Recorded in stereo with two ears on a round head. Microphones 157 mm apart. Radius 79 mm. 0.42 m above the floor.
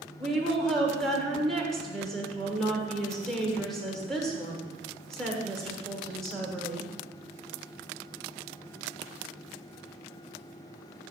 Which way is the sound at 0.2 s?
Centre (ahead or behind).